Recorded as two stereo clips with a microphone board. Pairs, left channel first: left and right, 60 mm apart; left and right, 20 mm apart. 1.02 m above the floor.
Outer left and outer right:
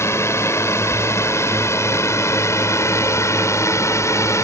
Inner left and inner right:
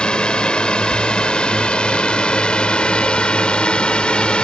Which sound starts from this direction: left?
A drone, at 0.0 s.